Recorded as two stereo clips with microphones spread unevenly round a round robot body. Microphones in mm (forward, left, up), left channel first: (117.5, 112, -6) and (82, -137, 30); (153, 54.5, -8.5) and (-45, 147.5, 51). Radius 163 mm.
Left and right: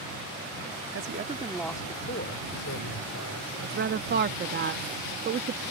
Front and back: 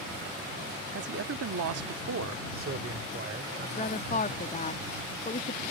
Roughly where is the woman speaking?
Ahead right.